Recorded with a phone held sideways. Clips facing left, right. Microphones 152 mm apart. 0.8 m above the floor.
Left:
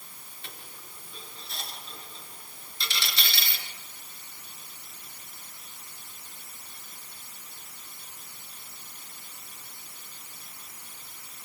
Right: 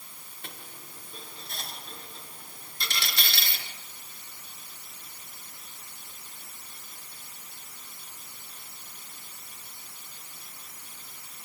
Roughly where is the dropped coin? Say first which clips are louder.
Right 2 dB; right.